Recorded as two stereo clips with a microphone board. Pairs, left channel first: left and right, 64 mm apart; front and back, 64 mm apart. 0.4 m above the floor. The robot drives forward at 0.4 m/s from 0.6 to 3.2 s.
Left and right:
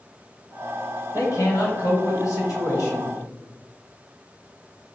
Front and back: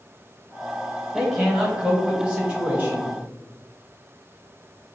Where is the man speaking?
95° left, 1.8 m; by 3.1 s 120° left, 2.0 m.